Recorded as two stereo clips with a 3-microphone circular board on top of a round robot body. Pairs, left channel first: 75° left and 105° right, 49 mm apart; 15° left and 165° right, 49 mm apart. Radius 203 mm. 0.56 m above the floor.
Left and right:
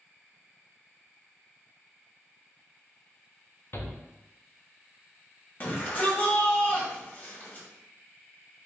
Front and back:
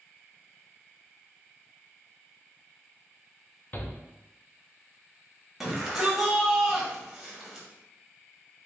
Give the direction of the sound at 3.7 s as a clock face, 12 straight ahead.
10 o'clock.